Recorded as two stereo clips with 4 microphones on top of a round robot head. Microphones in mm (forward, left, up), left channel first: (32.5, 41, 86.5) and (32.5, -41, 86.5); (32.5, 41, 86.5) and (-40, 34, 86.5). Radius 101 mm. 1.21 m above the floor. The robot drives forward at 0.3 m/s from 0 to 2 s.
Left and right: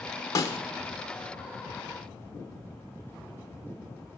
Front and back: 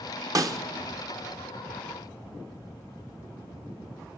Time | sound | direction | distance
0.3 | a snare drum | 145° left | 1.0 m